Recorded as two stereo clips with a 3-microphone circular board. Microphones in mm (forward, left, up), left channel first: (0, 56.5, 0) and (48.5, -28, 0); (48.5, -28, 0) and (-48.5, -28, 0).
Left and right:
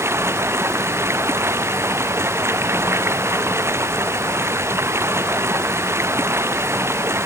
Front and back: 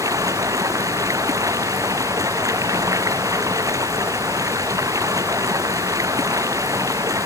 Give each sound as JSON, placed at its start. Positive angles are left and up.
{"t": 0.0, "sound": "running water", "azimuth_deg": -125}